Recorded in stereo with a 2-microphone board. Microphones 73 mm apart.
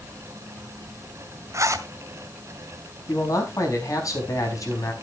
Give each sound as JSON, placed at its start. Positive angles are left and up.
{"t": 1.5, "sound": "a zipper", "side_deg": -45, "distance_m": 1.5}
{"t": 3.1, "sound": "a man speaking", "side_deg": 50, "distance_m": 4.5}